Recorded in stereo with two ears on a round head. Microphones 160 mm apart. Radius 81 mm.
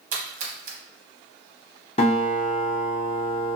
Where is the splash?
40° right (ahead or behind), 0.7 m.